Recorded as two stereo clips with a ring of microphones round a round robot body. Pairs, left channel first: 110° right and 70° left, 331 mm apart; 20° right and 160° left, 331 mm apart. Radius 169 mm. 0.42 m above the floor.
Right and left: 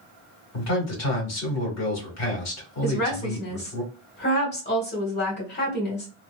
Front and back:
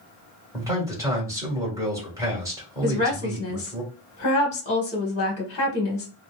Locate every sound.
0.5 s a man speaking: 125° right, 1.9 m
2.8 s a woman speaking: 80° right, 1.4 m